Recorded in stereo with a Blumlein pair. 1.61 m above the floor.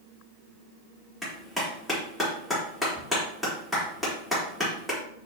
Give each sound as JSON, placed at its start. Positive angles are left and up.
{"t": 1.2, "sound": "a clap", "azimuth_deg": 5, "distance_m": 4.0}